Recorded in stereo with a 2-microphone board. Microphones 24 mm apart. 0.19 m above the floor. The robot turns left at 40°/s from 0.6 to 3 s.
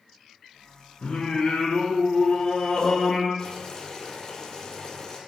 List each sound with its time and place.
1.0 s singing: 110° left, 1.4 m; by 3.3 s 30° left, 1.4 m
3.4 s boiling: 30° left (ahead or behind), 1.6 m